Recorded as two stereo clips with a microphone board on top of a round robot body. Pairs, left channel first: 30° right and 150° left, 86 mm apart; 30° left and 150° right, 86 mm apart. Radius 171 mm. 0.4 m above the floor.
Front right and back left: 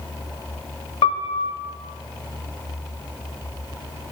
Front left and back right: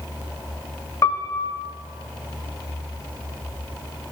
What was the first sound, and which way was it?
A piano, 25° right.